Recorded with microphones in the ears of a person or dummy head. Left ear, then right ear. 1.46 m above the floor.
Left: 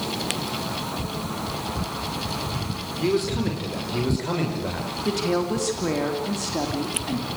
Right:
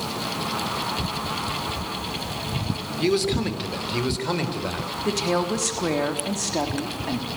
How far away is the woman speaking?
About 3.5 m.